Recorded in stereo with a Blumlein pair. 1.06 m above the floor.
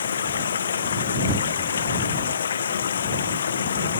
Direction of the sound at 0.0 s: 70° left.